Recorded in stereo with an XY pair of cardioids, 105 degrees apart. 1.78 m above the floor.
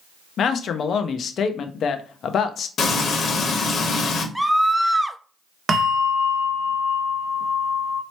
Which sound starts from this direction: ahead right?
A bell, at 5.7 s.